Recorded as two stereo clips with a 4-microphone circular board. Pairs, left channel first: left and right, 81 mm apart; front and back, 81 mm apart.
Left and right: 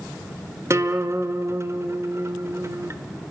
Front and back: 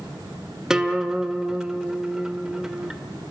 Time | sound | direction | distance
0.7 | a guitar | 100° right | 1.2 m